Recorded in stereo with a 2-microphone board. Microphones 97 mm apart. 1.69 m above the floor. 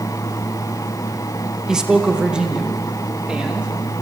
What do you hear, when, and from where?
1.7 s a man speaking: 5° right (ahead or behind), 1.8 m; by 3.7 s 10° right (ahead or behind), 3.5 m